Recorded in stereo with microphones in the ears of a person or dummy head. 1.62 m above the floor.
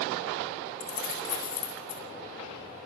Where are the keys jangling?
70° left (ahead or behind), 9 m.